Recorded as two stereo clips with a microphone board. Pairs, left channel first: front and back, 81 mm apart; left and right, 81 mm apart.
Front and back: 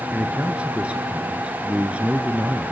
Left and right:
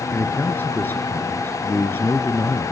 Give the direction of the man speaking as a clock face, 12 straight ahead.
8 o'clock.